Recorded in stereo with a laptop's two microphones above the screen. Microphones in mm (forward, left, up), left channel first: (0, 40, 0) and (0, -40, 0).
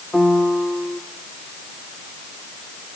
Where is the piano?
10° left (ahead or behind), 1.2 m.